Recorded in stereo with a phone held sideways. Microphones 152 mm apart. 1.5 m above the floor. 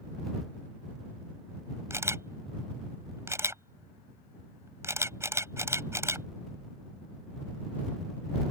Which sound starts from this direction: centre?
A camera shutter, at 1.9 s.